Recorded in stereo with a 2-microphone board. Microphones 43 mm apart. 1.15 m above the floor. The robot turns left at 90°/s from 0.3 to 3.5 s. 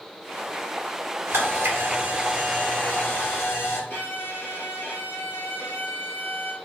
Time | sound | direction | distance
1.3 | a camera shutter | 75° right | 1.7 m
3.9 | a violin | 55° left (ahead or behind) | 1.2 m